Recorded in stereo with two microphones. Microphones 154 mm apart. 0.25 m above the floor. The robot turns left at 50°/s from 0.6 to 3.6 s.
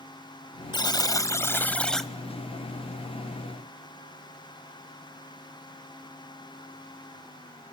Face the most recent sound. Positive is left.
turn(degrees=-75)